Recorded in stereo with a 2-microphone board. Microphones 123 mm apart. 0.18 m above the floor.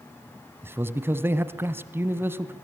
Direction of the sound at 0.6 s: 20° right (ahead or behind).